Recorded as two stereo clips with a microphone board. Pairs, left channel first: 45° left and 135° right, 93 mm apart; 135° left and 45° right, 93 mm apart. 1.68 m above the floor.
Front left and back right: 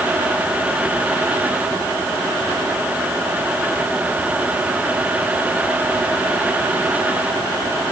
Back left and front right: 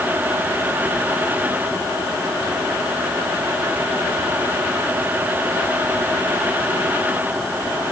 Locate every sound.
Only background noise.